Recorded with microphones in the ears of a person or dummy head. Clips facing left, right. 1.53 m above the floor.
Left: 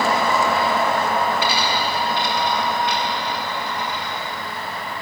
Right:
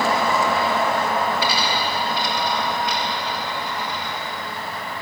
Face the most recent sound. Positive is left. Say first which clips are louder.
# left 1 dB
turn(degrees=20)  # may be behind; listen again after turning